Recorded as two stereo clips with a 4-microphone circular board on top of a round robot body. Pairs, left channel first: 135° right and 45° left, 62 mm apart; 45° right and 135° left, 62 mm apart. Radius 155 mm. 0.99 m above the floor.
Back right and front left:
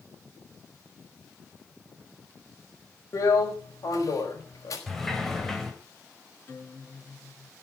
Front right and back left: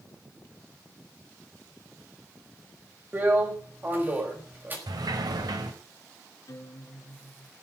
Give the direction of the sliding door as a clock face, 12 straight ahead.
7 o'clock.